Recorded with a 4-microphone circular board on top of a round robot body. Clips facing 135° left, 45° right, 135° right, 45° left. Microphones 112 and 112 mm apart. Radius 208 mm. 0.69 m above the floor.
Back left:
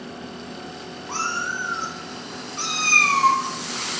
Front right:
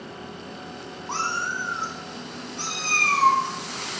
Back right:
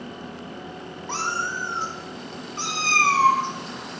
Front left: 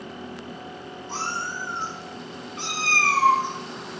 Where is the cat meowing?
105° right, 0.7 m; by 4.0 s 150° left, 2 m.